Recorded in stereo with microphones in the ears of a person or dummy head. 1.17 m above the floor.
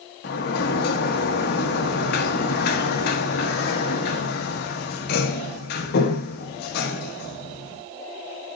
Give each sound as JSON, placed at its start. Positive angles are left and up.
{"t": 0.2, "sound": "a sliding door", "side_deg": 65, "distance_m": 1.0}